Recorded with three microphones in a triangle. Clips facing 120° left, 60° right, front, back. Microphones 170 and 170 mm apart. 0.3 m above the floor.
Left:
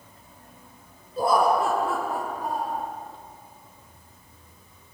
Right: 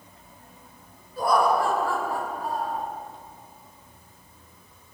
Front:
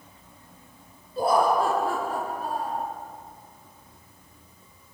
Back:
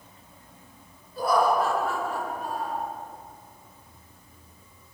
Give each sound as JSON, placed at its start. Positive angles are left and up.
{"t": 1.2, "sound": "laughter", "azimuth_deg": 60, "distance_m": 4.0}